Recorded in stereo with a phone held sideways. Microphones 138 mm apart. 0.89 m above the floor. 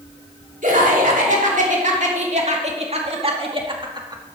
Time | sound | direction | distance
0.6 | laughter | 70° right (ahead or behind) | 3 m